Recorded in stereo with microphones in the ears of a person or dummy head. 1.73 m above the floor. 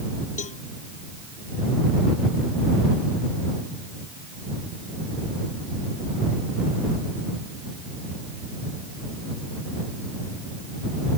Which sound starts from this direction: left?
A cowbell, at 0.4 s.